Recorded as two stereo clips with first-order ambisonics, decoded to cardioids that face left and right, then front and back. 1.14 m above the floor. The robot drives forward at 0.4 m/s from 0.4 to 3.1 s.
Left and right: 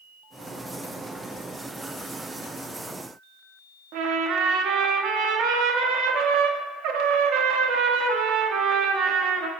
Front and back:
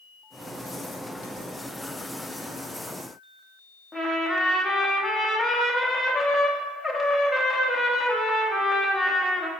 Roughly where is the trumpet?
Right.